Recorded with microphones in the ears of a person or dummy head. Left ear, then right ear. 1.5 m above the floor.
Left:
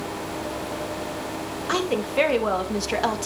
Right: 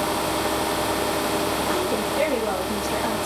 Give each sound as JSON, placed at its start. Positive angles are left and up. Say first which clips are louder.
{"t": 1.7, "sound": "a woman speaking", "louder": "right 1 dB", "side_deg": 65, "distance_m": 2.5}